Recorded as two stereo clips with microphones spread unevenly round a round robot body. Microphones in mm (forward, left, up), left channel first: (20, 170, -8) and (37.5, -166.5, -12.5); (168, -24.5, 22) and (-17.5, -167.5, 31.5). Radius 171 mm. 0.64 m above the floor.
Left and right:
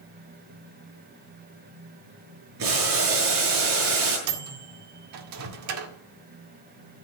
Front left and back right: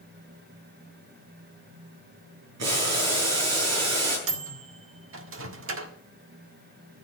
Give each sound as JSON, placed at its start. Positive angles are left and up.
{"t": 2.6, "sound": "boiling", "azimuth_deg": -140, "distance_m": 7.5}
{"t": 4.3, "sound": "a microwave", "azimuth_deg": -125, "distance_m": 1.7}